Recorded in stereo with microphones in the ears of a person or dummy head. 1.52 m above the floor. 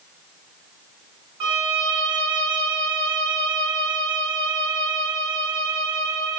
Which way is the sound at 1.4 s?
25° right (ahead or behind).